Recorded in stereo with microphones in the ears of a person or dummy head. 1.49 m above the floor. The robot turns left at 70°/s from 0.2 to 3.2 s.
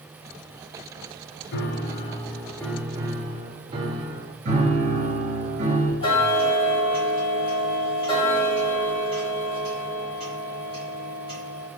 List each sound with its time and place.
1.5 s a piano: 85° left, 0.7 m; by 4.3 s 35° right, 0.7 m
4.5 s a piano: 50° right (ahead or behind), 1.7 m
6.0 s ticking: 30° left (ahead or behind), 1.4 m